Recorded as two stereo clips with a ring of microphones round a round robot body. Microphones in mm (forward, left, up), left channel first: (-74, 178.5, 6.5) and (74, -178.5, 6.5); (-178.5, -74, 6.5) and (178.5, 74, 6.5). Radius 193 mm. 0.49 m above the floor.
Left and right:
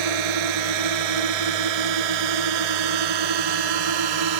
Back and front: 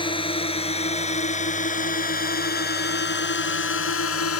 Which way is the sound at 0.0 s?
80° right.